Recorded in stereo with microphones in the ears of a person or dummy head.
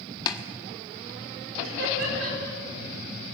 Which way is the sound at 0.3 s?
25° left (ahead or behind).